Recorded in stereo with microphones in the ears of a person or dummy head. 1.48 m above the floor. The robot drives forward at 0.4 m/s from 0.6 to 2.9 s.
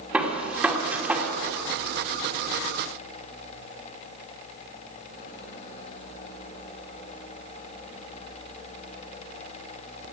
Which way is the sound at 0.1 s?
5° right (ahead or behind).